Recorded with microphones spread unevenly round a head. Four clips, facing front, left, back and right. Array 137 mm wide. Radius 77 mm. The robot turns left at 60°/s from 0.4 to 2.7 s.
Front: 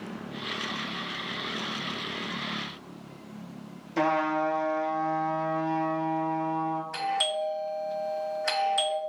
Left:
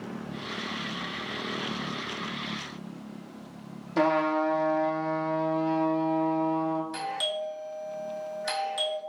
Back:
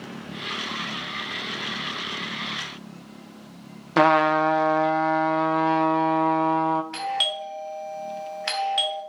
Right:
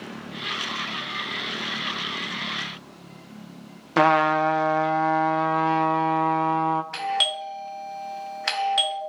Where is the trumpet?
155° right, 0.7 m.